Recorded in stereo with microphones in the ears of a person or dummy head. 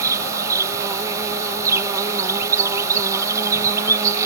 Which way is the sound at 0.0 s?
20° right (ahead or behind).